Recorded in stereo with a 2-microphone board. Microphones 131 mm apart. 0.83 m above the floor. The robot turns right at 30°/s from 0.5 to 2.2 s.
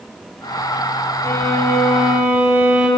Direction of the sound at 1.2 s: 20° left (ahead or behind).